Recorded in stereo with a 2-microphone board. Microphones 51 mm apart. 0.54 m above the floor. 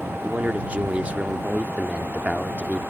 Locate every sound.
0.2 s a man speaking: 30° right (ahead or behind)